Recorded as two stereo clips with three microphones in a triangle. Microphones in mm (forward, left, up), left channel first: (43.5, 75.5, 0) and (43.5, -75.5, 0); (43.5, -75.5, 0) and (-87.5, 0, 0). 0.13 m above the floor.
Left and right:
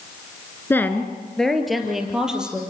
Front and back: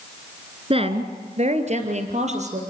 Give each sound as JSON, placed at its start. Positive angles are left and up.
{"t": 0.7, "sound": "a woman speaking", "azimuth_deg": 155, "distance_m": 1.7}